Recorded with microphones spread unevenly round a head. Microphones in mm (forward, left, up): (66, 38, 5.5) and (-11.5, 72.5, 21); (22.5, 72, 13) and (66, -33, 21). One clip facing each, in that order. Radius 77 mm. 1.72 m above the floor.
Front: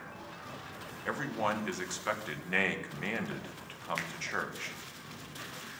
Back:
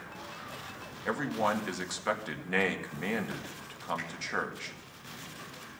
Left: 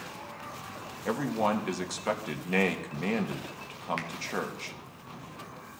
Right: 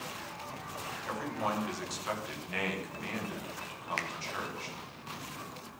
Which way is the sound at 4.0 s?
25° right.